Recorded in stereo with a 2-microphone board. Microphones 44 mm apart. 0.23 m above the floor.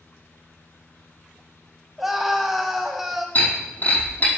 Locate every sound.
2.0 s a scream: 5° right (ahead or behind), 1.6 m
3.4 s breaking glass: 40° left (ahead or behind), 5 m